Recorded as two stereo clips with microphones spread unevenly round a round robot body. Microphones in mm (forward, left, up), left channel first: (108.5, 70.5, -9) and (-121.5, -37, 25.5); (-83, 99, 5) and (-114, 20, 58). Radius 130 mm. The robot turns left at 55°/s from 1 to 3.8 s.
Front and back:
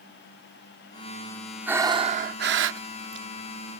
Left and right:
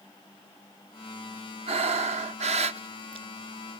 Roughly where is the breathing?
Ahead right.